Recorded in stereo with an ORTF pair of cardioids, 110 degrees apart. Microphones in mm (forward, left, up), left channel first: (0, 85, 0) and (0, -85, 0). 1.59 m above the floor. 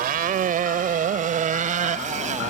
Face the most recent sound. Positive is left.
turn(degrees=-45)